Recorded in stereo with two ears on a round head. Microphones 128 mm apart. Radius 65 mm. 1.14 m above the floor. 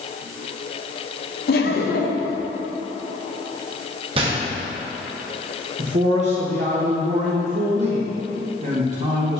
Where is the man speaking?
55° right (ahead or behind), 1.2 m.